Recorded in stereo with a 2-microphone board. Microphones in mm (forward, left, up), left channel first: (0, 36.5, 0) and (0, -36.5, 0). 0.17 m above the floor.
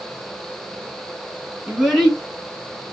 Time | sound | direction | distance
1.7 | a child speaking | 20° right (ahead or behind) | 1.2 m